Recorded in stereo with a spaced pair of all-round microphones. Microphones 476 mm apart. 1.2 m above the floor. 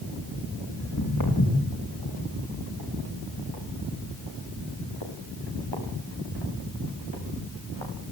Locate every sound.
0.8 s footsteps: 40° left (ahead or behind), 9 m; by 7.9 s 70° left (ahead or behind), 9 m